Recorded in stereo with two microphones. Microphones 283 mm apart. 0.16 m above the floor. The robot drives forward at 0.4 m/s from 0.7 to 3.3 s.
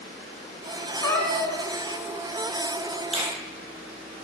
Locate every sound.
1.0 s a cat meowing: 10° left (ahead or behind), 1.0 m; by 1.6 s 15° left (ahead or behind), 0.8 m
3.1 s a finger snap: 20° right (ahead or behind), 2 m